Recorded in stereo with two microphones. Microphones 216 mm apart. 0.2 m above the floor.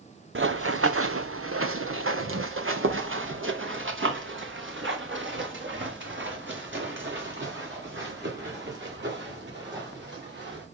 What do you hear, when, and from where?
0.3 s running footsteps: 65° right (ahead or behind), 0.7 m; by 10.6 s 55° right (ahead or behind), 6.5 m